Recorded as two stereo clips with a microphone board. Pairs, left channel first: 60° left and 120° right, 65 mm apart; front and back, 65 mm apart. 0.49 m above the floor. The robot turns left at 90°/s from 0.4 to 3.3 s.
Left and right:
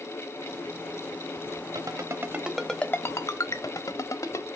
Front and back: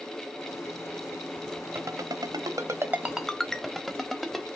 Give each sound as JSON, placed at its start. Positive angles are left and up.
{"t": 1.8, "sound": "a ringtone", "azimuth_deg": -135, "distance_m": 1.0}